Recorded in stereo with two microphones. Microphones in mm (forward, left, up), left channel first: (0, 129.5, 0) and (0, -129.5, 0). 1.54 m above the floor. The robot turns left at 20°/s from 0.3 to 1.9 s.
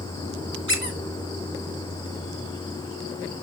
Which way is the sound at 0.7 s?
50° left (ahead or behind).